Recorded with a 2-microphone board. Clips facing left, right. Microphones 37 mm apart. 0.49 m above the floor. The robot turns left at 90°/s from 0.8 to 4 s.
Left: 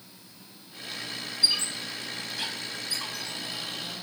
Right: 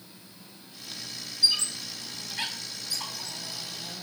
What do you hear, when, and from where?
1.4 s a squeak: 35° left (ahead or behind), 1.7 m; by 3.4 s 40° right (ahead or behind), 1.7 m